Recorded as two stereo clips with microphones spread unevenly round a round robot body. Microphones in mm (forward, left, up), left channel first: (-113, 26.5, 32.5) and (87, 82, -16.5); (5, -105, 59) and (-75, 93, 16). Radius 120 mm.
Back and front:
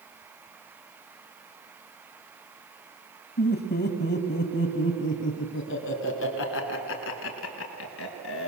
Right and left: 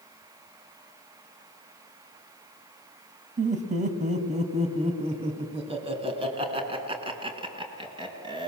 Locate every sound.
3.4 s laughter: 155° left, 2.5 m; by 8.5 s 175° left, 5 m